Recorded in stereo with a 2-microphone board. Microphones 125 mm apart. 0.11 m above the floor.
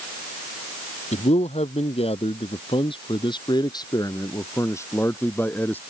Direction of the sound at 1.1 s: 65° left (ahead or behind).